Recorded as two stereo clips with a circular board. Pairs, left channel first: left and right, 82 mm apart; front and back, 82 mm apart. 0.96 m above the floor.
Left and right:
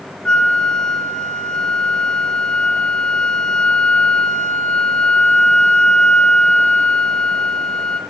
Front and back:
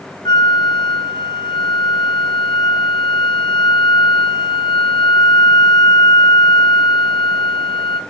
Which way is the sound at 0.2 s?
15° left.